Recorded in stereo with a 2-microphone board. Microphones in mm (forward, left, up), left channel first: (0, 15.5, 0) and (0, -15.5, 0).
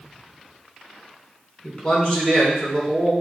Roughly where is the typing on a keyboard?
No typing on a keyboard in this recording.